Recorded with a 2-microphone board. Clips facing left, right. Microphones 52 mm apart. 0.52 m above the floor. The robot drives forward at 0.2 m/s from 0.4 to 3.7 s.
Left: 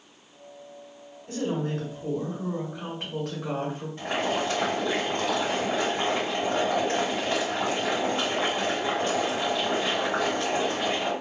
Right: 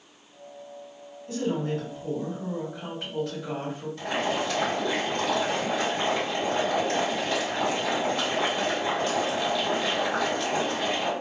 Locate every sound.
1.3 s a woman speaking: 55° left (ahead or behind), 1.6 m; by 3.9 s 65° left (ahead or behind), 1.5 m
4.0 s boiling: 35° left (ahead or behind), 2.0 m